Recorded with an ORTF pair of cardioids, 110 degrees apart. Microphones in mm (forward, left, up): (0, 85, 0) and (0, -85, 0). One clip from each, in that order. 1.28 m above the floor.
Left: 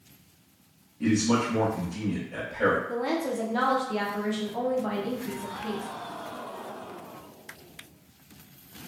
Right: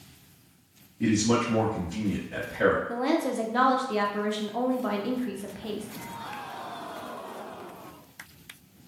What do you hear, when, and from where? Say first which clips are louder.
1.0 s a man speaking: even; 20° right, 1.0 m
2.9 s a woman speaking: right 2 dB; 15° right, 0.6 m